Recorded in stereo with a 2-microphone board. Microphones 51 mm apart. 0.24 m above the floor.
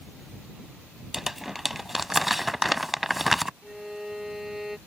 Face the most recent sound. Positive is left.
turn(degrees=-5)  # may be behind; listen again after turning